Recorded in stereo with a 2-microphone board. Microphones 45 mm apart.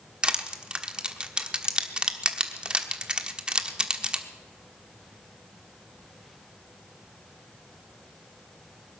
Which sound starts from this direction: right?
Crushing, at 0.2 s.